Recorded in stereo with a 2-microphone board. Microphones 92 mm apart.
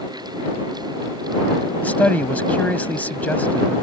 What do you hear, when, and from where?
1.8 s a man speaking: 20° left (ahead or behind)